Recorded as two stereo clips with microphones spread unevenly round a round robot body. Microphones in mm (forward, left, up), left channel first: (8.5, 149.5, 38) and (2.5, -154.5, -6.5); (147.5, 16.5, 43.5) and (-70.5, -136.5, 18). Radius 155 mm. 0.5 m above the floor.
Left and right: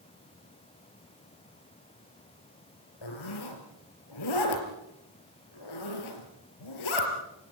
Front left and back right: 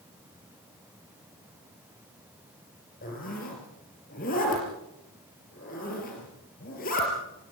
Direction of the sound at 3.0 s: 100° left.